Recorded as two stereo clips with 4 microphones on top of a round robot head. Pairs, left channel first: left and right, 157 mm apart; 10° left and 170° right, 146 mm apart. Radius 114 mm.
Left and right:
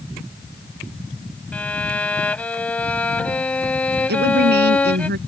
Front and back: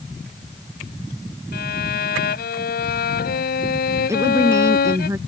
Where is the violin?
10° left.